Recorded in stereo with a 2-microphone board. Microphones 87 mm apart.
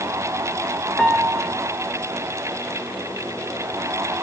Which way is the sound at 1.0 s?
10° left (ahead or behind).